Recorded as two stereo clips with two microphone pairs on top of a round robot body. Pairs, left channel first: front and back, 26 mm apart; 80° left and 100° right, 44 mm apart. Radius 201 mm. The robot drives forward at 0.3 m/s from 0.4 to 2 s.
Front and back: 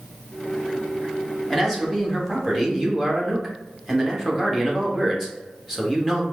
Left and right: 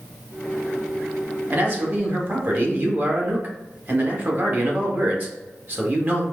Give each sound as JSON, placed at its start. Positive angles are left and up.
{"t": 1.5, "sound": "a man speaking", "azimuth_deg": -95, "distance_m": 1.4}